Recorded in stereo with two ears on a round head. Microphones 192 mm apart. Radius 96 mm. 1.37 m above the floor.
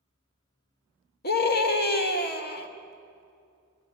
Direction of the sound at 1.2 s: 50° left (ahead or behind).